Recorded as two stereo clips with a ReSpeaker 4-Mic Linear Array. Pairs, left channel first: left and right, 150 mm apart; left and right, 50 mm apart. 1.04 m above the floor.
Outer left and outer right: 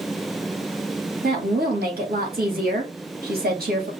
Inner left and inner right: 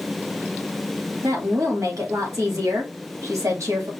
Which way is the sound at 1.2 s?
70° right (ahead or behind).